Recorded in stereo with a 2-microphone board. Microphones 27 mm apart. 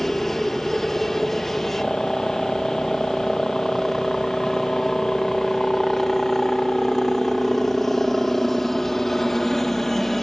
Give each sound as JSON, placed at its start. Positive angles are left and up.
{"t": 0.0, "sound": "a helicopter", "side_deg": 5}